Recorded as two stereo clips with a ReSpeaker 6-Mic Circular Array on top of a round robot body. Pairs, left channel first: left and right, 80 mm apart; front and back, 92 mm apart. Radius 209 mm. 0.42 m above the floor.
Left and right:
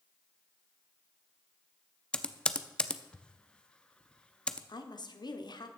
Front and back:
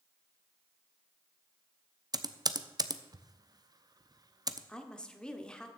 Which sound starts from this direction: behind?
Typing on a keyboard, at 2.1 s.